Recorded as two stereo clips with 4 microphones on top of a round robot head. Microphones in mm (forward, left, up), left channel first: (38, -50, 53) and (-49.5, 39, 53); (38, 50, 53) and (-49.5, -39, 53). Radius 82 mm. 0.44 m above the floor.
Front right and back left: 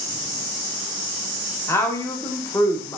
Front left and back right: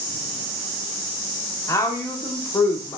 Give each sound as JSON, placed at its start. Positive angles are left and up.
{"t": 1.7, "sound": "a woman speaking", "azimuth_deg": 5, "distance_m": 0.9}